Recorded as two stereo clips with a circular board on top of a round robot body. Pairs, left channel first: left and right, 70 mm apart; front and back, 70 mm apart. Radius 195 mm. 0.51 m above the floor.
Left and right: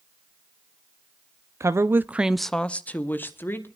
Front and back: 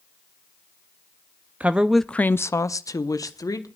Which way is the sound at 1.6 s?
120° right.